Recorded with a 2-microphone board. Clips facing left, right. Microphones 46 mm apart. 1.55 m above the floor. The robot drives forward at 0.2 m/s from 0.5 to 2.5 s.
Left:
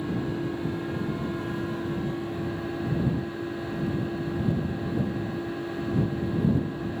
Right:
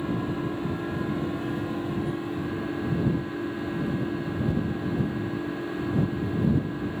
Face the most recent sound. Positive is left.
turn(degrees=-20)  # may be behind; listen again after turning